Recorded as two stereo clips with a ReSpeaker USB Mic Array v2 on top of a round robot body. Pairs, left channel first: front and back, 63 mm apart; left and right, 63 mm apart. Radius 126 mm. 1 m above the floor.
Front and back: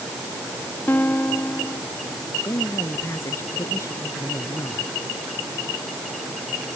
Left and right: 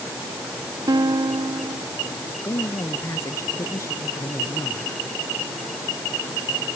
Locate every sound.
0.9 s a guitar: 65° right
2.4 s a man speaking: 45° left